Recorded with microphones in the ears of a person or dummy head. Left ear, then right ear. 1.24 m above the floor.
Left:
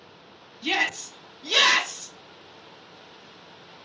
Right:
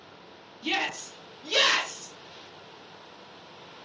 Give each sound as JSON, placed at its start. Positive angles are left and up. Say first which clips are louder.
{"t": 0.6, "sound": "a shout", "louder": "left 4 dB", "side_deg": 70, "distance_m": 1.7}